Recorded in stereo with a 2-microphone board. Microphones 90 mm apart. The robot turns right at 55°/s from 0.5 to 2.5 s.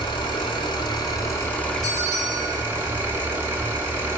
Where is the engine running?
100° left, 1.0 m; by 4.2 s 150° right, 1.0 m.